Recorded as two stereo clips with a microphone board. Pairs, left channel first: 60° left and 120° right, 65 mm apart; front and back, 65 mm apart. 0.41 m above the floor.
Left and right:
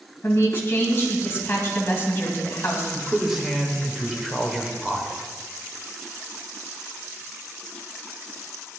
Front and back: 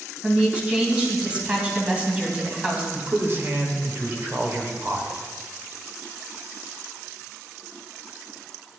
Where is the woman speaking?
110° left, 2.5 m.